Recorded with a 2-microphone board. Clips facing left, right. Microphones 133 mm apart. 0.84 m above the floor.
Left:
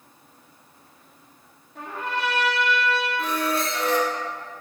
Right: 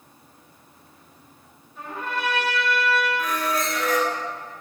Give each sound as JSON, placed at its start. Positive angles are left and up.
{"t": 1.8, "sound": "a trumpet", "side_deg": 70, "distance_m": 2.0}
{"t": 3.2, "sound": "a squeak", "side_deg": 30, "distance_m": 0.9}